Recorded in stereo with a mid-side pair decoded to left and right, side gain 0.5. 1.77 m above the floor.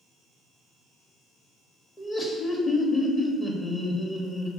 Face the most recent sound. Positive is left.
turn(degrees=25)